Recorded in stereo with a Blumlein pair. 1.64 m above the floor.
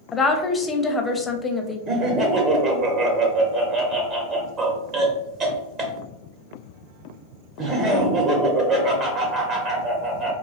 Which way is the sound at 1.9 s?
30° right.